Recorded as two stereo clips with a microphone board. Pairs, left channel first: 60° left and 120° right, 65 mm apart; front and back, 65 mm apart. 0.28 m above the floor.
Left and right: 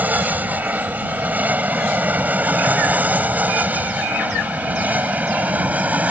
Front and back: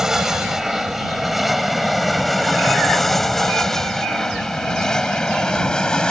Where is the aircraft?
105° right; by 6.1 s 70° right.